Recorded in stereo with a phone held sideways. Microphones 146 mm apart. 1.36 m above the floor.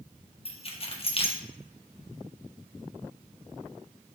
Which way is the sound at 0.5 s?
40° left (ahead or behind).